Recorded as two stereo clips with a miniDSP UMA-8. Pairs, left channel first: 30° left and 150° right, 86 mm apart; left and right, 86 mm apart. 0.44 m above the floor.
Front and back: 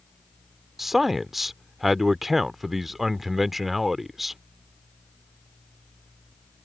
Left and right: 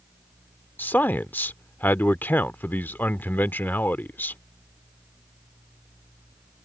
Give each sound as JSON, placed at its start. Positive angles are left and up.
{"t": 0.8, "sound": "a man speaking", "azimuth_deg": 125}